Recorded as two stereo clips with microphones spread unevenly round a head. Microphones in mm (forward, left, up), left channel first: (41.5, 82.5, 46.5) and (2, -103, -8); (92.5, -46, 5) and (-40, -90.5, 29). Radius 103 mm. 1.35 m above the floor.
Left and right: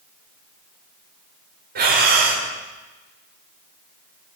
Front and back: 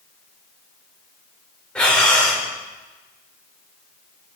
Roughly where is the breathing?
Ahead right.